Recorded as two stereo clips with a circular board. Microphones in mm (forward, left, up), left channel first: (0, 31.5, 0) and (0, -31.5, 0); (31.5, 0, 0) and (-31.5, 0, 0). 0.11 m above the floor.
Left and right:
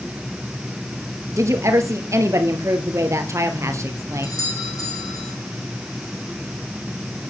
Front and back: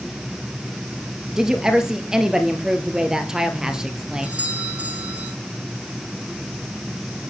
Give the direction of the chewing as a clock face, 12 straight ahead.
No chewing in this recording.